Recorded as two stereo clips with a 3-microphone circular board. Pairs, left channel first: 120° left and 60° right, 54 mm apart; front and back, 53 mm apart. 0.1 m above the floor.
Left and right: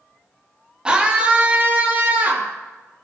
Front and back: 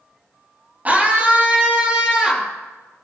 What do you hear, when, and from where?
0.8 s a scream: 130° right, 2.5 m; by 2.5 s 105° right, 3 m